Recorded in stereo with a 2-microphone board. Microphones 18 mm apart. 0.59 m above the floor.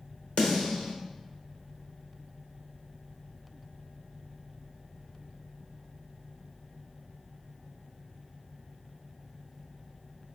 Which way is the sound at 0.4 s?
70° left (ahead or behind).